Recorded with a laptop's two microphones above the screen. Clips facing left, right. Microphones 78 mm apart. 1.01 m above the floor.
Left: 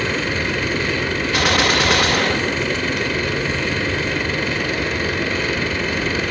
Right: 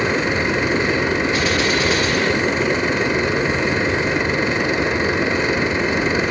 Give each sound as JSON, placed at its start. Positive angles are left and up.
{"t": 0.0, "sound": "a machine running", "side_deg": -20, "distance_m": 0.7}
{"t": 1.3, "sound": "a gunshot", "side_deg": 70, "distance_m": 1.7}